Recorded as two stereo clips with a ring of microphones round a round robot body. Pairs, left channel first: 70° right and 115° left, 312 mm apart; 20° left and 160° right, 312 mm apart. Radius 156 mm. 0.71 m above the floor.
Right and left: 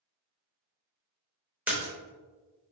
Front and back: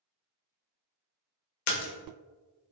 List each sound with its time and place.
1.7 s a splash: 30° left, 0.6 m